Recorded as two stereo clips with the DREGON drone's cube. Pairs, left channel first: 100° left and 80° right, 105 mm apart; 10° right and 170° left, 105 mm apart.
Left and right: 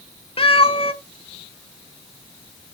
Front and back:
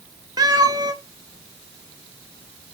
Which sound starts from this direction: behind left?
A cat meowing, at 0.4 s.